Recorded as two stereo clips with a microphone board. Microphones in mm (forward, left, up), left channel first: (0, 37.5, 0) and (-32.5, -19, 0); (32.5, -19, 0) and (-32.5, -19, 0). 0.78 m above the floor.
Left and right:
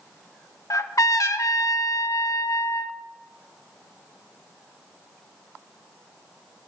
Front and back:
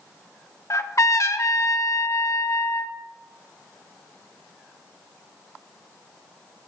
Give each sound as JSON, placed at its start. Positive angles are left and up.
{"t": 0.7, "sound": "a trumpet", "azimuth_deg": 35, "distance_m": 0.8}